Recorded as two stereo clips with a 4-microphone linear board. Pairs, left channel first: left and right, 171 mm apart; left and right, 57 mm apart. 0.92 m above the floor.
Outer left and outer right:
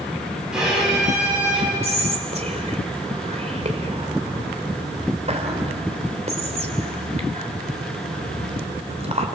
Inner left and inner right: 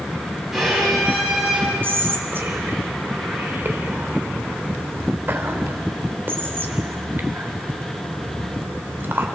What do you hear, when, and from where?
0.5 s a violin: 5° right (ahead or behind), 7.5 m
1.8 s whispering: 40° right (ahead or behind), 3 m